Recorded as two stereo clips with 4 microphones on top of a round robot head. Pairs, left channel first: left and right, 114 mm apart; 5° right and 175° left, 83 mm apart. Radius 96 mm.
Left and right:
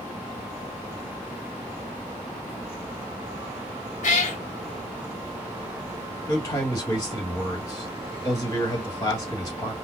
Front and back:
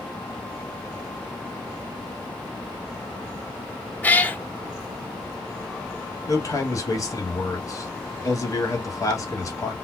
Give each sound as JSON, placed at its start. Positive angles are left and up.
{"t": 4.0, "sound": "a cat meowing", "azimuth_deg": 70, "distance_m": 0.8}
{"t": 6.3, "sound": "a man speaking", "azimuth_deg": 25, "distance_m": 1.4}